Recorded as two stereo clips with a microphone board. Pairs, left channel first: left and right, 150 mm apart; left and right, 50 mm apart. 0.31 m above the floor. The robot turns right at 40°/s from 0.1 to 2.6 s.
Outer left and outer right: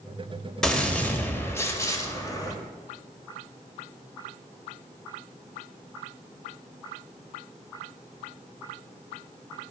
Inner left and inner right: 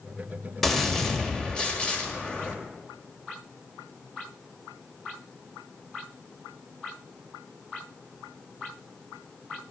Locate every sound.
0.6 s a gunshot: 5° left (ahead or behind), 1.4 m; by 2.5 s 25° left (ahead or behind), 1.4 m